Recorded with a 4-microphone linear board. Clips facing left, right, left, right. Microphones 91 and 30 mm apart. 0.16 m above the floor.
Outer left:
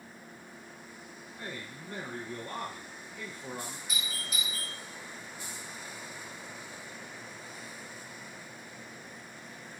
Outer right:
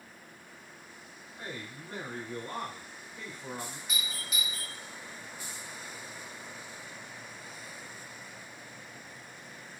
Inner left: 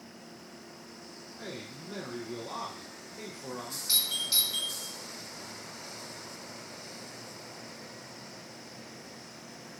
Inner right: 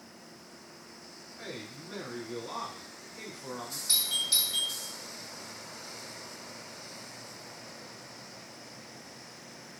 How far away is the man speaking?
About 1.1 m.